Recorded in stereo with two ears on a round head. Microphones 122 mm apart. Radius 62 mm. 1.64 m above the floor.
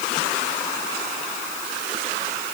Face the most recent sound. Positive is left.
No sound to turn to.